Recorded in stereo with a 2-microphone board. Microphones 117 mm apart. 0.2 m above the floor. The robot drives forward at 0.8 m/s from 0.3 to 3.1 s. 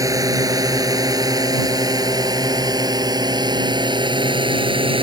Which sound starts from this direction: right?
A drone, at 0.0 s.